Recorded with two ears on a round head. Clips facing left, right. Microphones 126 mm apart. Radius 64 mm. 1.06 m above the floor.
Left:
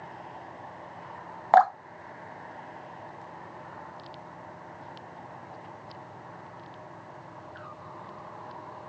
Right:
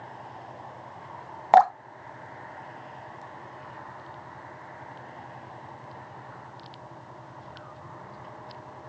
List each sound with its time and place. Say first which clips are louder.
1.5 s dripping: right 2 dB; 20° right (ahead or behind), 0.7 m